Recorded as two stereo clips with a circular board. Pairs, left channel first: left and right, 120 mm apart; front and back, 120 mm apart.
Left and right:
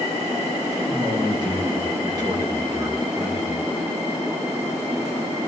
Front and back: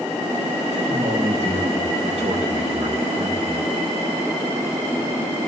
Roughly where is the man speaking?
Behind right.